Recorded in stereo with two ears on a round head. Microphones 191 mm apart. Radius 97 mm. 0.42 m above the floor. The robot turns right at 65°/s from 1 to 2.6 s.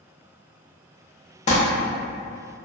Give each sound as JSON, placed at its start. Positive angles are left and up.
{"t": 1.5, "sound": "crumpling", "side_deg": 35, "distance_m": 0.6}